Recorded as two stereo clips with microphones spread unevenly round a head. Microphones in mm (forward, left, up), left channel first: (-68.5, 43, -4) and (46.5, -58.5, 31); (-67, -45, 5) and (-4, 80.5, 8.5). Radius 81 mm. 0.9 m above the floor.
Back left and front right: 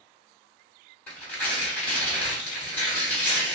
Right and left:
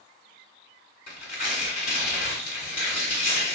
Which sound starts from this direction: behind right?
Tearing paper, at 1.1 s.